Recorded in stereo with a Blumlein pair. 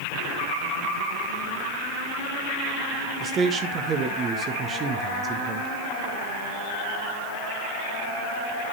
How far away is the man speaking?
About 1.6 m.